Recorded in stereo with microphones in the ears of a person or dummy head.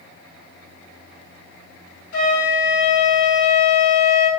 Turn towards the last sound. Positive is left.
turn(degrees=60)  # may be behind; listen again after turning